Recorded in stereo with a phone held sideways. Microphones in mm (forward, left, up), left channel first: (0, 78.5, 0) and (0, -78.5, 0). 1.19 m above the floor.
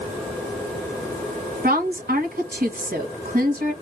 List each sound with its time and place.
1.6 s a woman speaking: 70° right (ahead or behind), 1.3 m